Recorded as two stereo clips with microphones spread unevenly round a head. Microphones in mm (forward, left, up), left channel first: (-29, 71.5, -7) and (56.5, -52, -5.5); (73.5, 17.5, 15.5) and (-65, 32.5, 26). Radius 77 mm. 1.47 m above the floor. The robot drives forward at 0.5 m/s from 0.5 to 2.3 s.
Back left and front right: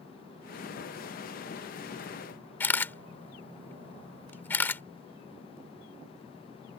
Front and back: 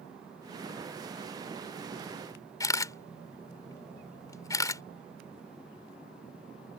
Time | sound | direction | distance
2.6 | a camera shutter | 55° left | ?